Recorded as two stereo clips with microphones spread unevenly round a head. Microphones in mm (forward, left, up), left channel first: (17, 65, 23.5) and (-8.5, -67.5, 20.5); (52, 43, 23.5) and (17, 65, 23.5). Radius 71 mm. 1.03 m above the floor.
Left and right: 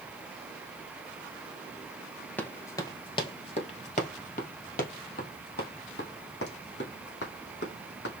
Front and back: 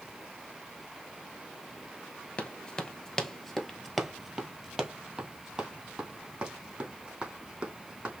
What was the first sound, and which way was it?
Running footsteps, 10° left.